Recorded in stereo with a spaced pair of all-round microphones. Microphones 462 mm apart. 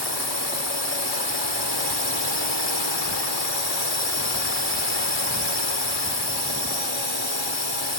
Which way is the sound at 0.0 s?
75° left (ahead or behind).